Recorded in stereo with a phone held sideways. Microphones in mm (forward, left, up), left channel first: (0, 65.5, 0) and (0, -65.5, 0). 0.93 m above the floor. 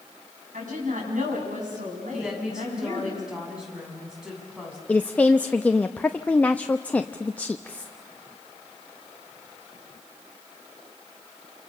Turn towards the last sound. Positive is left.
turn(degrees=10)  # may be behind; listen again after turning